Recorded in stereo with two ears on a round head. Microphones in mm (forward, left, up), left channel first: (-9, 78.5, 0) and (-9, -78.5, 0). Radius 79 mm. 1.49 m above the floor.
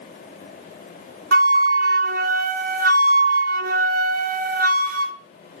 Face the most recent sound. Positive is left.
turn(degrees=-50)  # may be behind; listen again after turning